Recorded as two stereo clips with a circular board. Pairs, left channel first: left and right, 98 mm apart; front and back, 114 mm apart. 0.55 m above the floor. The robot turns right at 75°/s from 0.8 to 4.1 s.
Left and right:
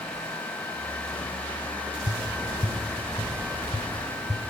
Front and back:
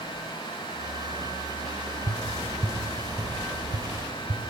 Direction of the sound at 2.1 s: 40° left.